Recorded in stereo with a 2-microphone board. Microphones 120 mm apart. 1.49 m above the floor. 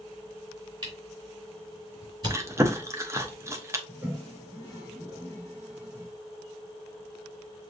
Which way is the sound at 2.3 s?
25° right (ahead or behind).